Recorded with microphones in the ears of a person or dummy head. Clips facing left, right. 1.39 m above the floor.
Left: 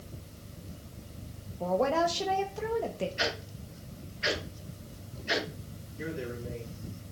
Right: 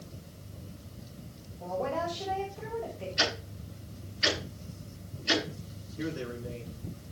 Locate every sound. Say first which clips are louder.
1.6 s a woman speaking: left 5 dB; 65° left (ahead or behind), 1.4 m
3.2 s ticking: even; 55° right (ahead or behind), 9 m
6.0 s a man speaking: right 1 dB; 55° right (ahead or behind), 9.5 m